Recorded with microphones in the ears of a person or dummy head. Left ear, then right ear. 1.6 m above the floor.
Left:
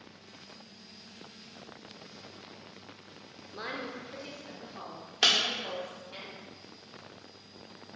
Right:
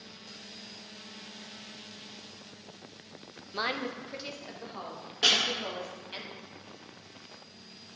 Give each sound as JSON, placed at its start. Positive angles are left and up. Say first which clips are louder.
{"t": 3.5, "sound": "a woman speaking", "louder": "right 6 dB", "side_deg": -50, "distance_m": 0.6}
{"t": 5.2, "sound": "breaking glass", "louder": "even", "side_deg": 50, "distance_m": 1.4}